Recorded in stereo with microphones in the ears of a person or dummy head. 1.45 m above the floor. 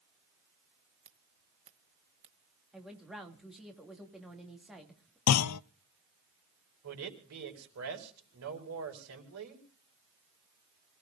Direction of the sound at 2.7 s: Centre (ahead or behind).